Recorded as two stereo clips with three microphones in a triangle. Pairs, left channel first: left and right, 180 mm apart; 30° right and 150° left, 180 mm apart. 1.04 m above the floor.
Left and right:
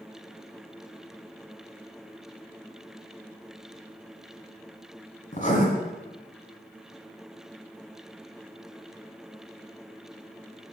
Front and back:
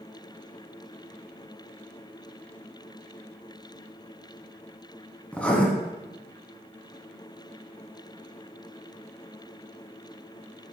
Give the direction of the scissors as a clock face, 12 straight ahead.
No scissors in this recording.